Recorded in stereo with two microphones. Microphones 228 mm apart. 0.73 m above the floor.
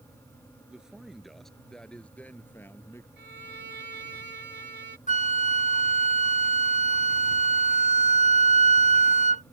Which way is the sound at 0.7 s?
5° right (ahead or behind).